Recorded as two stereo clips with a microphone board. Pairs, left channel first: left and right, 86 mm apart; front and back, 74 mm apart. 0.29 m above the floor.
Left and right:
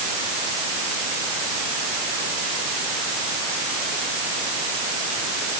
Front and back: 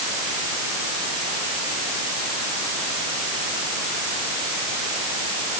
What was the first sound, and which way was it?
Only background noise.